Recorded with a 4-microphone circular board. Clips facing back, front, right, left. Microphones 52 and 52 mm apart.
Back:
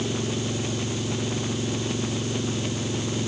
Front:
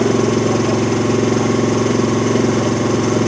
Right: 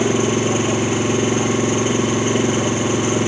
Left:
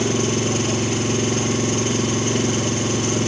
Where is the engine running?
20° right.